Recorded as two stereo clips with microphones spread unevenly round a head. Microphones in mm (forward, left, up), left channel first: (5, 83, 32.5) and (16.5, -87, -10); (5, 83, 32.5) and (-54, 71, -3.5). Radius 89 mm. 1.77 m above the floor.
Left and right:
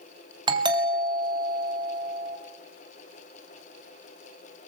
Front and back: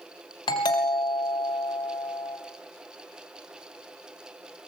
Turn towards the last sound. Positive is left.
turn(degrees=-25)